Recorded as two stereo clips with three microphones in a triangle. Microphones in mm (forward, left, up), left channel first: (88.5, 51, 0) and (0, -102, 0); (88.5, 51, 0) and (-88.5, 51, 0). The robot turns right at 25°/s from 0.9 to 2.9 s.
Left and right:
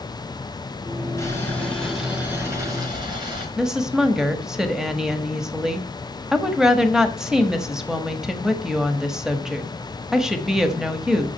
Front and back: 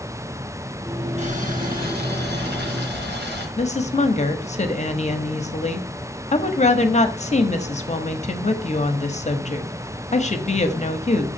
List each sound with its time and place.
1.2 s boiling: 130° left, 3.5 m; by 3.5 s 175° left, 3.5 m
3.6 s a woman speaking: 35° right, 1.3 m